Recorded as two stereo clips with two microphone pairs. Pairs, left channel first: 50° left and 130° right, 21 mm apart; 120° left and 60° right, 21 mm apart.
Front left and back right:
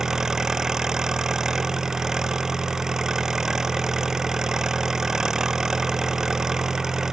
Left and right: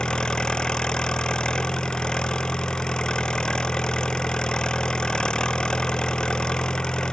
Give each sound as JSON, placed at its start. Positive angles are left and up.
{"t": 0.0, "sound": "an engine running", "azimuth_deg": 165}